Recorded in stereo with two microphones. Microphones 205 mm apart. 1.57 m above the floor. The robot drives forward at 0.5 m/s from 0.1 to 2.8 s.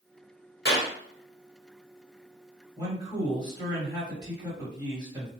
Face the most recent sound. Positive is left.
turn(degrees=-20)  # may be behind; listen again after turning